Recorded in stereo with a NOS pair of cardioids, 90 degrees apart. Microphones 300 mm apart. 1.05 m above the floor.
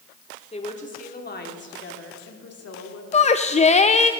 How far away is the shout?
About 0.6 m.